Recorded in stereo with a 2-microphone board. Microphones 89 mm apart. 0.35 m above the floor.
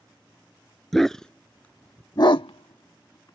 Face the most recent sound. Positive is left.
turn(degrees=50)  # may be behind; listen again after turning